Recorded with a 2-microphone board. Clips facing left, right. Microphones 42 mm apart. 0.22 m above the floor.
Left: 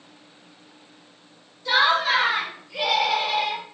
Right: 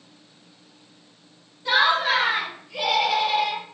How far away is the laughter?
About 1.6 m.